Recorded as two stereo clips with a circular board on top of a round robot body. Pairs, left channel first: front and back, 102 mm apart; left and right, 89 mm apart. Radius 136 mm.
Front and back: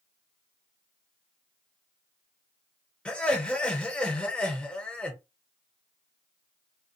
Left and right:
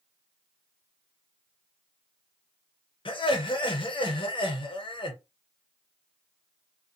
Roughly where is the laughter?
Left.